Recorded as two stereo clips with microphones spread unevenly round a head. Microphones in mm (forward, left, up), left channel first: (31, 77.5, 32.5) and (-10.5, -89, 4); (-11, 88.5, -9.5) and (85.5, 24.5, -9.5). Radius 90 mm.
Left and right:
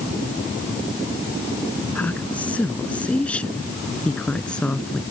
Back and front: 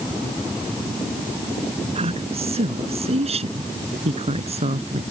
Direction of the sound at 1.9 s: 5° right.